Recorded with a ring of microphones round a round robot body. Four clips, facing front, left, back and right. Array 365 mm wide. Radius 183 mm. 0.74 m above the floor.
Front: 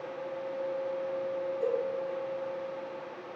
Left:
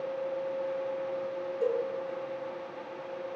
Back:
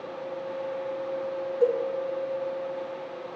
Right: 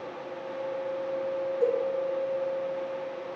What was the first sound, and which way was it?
A cowbell, 175° left.